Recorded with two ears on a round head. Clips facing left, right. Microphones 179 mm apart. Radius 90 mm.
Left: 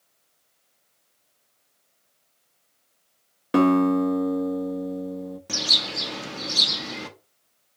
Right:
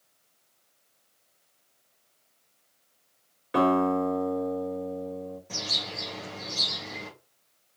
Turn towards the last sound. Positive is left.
turn(degrees=80)